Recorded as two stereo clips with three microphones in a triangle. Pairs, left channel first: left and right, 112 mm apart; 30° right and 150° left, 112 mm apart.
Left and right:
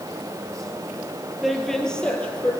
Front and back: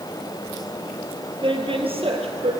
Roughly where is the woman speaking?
Behind.